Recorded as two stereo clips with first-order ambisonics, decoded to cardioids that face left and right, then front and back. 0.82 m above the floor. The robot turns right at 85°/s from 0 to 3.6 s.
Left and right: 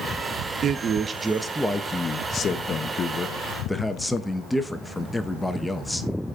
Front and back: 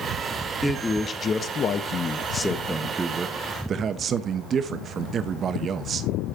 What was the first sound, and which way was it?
A man speaking, 85° right.